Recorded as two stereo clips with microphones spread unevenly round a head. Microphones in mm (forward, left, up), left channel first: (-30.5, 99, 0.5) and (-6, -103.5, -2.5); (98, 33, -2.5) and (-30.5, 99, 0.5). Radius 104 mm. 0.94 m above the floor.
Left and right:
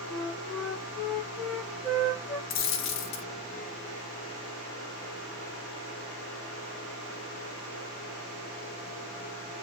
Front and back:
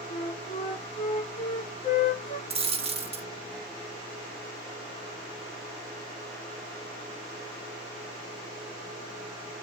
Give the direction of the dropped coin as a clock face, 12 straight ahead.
8 o'clock.